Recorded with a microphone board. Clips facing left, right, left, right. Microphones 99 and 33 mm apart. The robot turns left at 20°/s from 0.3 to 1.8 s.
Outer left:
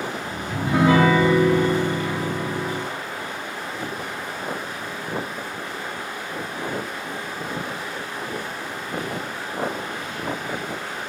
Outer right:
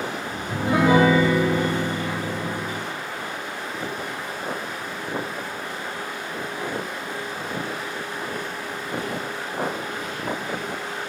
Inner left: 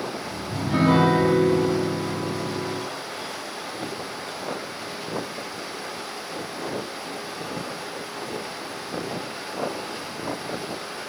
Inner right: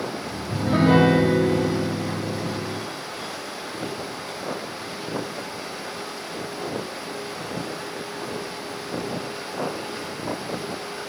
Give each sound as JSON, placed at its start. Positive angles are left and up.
{"t": 0.5, "sound": "a piano", "side_deg": -45, "distance_m": 2.5}